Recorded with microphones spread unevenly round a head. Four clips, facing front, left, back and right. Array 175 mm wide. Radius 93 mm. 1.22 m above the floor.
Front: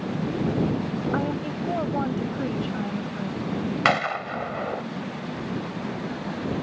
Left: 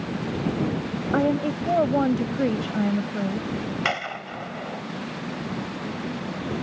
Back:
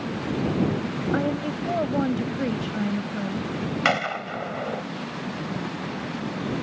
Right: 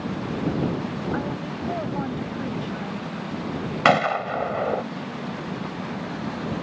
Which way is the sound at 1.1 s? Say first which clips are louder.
Left 6 dB, back 1 dB; 90° left.